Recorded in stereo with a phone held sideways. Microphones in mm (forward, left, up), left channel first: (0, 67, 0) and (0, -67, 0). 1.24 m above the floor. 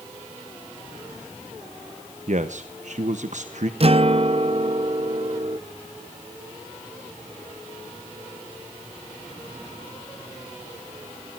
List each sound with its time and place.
2.3 s a man speaking: 65° right (ahead or behind), 1.1 m
3.8 s a guitar: 45° right (ahead or behind), 0.6 m